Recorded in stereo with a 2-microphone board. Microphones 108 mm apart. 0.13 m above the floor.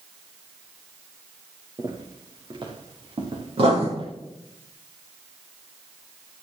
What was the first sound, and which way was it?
Footsteps, 40° right (ahead or behind).